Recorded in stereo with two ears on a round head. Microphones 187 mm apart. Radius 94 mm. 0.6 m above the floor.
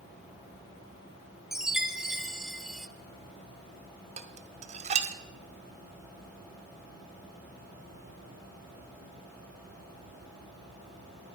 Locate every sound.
1.5 s a chime: centre (ahead or behind), 0.6 m
4.2 s dishes clattering: 30° right (ahead or behind), 1.0 m